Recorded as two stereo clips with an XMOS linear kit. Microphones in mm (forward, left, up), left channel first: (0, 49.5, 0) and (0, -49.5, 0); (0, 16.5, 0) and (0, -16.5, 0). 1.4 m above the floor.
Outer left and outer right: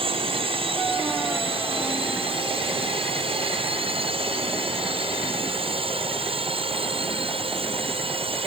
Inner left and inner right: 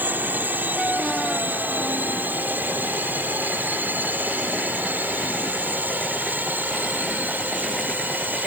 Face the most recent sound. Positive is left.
turn(degrees=-70)  # may be behind; listen again after turning